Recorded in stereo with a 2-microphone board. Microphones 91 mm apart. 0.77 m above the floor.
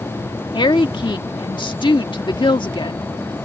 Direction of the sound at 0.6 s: 60° left (ahead or behind).